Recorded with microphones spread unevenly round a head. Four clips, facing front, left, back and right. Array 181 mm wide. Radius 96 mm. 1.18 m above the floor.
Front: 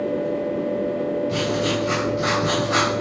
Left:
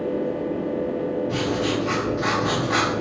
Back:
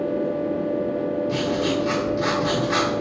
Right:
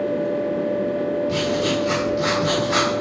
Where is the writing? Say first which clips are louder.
Right 2 dB, even; 140° right, 1.3 m.